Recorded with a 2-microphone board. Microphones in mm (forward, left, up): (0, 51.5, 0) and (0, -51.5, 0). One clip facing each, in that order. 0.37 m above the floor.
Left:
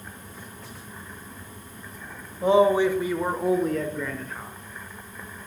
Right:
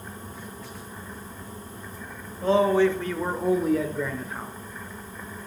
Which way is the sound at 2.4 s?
15° left (ahead or behind).